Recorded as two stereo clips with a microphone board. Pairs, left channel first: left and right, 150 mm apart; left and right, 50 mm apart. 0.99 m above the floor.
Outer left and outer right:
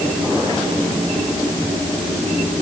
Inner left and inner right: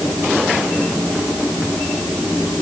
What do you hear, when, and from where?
Only background noise.